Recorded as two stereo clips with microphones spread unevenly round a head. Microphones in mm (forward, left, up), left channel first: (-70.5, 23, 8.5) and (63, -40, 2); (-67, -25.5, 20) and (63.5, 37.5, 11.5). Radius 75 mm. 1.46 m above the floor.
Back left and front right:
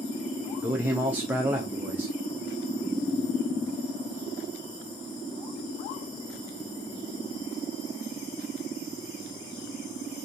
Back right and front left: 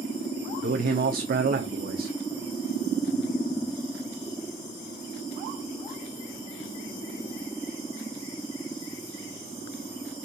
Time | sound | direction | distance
0.6 | a man speaking | 55° left | 0.5 m